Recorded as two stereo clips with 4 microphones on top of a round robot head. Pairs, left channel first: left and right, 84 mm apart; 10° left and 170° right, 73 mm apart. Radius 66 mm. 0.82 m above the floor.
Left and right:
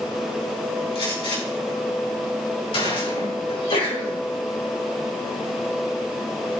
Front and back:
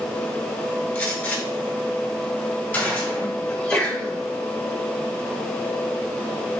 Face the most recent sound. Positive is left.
turn(degrees=85)